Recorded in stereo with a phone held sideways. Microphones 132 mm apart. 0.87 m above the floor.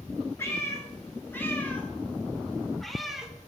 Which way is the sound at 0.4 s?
20° left (ahead or behind).